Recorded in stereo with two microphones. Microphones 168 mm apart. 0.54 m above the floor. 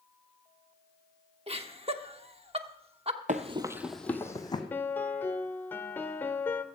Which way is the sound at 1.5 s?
35° right (ahead or behind).